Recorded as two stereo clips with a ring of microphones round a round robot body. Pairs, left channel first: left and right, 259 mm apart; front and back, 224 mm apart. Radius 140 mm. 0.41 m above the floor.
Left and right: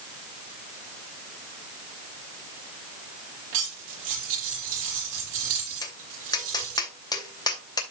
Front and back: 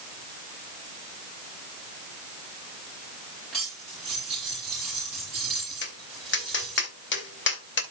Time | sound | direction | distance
3.5 | cutlery clinking | 90° right | 7.5 m
5.8 | tapping | 15° left | 2.5 m